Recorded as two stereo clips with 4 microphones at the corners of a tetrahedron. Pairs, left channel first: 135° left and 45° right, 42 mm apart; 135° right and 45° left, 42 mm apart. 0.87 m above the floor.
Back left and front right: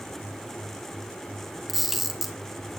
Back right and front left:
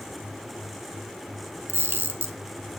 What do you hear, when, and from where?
1.7 s a camera shutter: 40° left, 1.8 m